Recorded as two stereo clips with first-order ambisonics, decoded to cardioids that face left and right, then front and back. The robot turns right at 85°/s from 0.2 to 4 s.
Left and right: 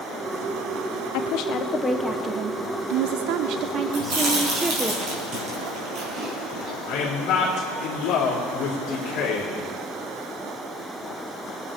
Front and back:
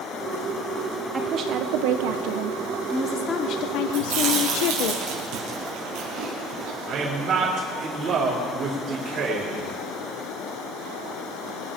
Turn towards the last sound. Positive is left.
turn(degrees=120)